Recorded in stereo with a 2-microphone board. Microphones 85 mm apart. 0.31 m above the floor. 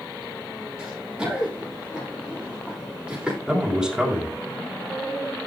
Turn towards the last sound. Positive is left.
turn(degrees=-10)  # may be behind; listen again after turning